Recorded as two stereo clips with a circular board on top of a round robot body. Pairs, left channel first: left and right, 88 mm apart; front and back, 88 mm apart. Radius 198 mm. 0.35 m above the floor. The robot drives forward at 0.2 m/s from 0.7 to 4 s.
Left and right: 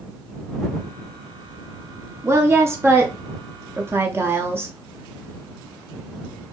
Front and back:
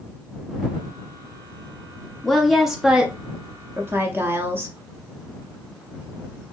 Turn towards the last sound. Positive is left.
turn(degrees=-135)